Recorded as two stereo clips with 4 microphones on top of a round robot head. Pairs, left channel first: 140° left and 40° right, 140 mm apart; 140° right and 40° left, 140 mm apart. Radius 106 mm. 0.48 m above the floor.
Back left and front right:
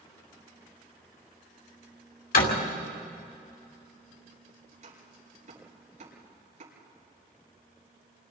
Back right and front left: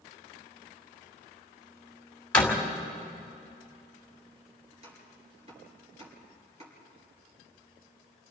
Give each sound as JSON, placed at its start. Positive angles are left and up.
{"t": 2.3, "sound": "a door slam", "azimuth_deg": 140, "distance_m": 2.5}
{"t": 4.7, "sound": "chopping", "azimuth_deg": -5, "distance_m": 8.0}